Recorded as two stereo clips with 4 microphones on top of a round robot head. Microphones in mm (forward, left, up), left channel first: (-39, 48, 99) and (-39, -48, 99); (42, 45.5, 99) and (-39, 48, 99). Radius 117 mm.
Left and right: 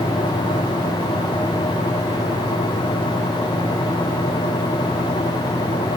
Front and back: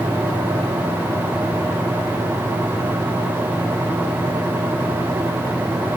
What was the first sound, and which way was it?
Only background noise.